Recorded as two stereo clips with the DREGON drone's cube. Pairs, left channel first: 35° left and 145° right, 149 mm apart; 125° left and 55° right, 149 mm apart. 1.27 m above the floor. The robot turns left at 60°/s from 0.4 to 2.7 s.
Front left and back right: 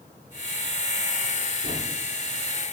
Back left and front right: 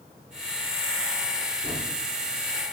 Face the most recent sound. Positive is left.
turn(degrees=-175)